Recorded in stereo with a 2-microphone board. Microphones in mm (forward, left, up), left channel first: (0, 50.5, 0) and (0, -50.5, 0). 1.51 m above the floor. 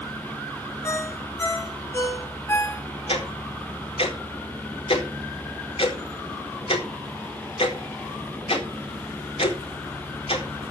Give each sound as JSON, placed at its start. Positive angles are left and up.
{"t": 0.8, "sound": "a ringtone", "side_deg": 30, "distance_m": 2.5}
{"t": 3.1, "sound": "ticking", "side_deg": 75, "distance_m": 4.0}